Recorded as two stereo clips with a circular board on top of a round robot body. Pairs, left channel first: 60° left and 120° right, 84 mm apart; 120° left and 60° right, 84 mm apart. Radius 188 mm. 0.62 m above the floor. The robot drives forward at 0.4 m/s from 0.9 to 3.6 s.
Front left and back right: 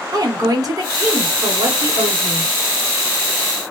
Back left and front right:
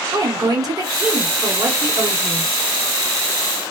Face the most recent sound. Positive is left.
turn(degrees=-130)